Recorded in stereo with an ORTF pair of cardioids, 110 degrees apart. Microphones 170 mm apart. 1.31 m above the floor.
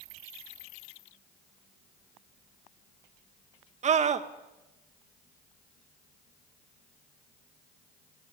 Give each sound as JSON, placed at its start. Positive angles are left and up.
{"t": 3.8, "sound": "a scream", "azimuth_deg": -45, "distance_m": 2.0}